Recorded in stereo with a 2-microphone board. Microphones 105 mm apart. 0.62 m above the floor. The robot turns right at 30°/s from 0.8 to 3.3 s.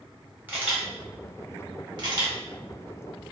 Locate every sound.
0.5 s a camera shutter: 15° right (ahead or behind), 0.9 m; by 2.4 s 50° right (ahead or behind), 0.9 m